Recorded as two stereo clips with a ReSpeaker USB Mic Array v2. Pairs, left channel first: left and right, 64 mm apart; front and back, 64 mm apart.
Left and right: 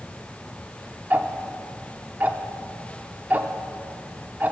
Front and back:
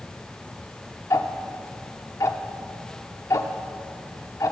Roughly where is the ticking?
Ahead right.